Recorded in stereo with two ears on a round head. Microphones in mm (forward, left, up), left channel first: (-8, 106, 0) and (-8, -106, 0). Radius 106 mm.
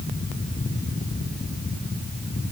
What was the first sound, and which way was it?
Only background noise.